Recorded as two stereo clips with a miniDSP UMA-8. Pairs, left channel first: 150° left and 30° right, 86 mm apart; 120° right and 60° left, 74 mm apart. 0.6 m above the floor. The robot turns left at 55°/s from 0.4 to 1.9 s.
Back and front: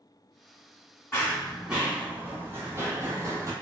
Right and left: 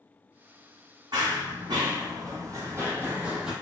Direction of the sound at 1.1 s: 85° left.